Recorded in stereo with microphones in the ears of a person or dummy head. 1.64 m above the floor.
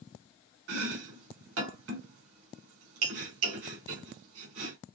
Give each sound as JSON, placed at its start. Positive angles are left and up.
{"t": 0.7, "sound": "chopping", "side_deg": -70, "distance_m": 3.5}